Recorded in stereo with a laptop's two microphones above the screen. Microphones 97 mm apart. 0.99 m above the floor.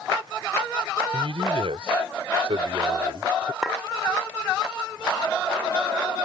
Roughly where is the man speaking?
Right.